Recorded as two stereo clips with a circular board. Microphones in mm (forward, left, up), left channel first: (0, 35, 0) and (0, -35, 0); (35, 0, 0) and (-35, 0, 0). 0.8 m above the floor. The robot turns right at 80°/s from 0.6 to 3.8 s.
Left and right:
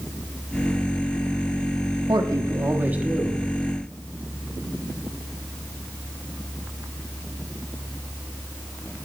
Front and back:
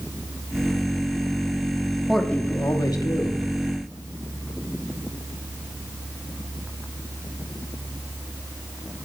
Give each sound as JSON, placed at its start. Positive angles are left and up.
{"t": 2.1, "sound": "a man speaking", "azimuth_deg": -90, "distance_m": 1.0}